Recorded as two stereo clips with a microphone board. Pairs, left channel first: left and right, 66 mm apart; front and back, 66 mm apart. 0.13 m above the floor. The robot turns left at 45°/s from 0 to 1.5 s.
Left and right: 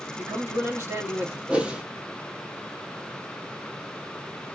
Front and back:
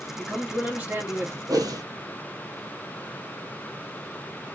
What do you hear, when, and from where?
0.2 s a man speaking: 85° right, 2.5 m; by 1.4 s 140° right, 2.5 m
1.5 s a whoosh: 165° right, 0.7 m